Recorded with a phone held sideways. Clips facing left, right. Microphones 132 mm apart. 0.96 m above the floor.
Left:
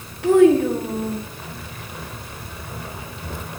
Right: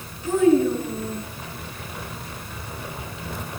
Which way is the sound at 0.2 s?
65° left (ahead or behind).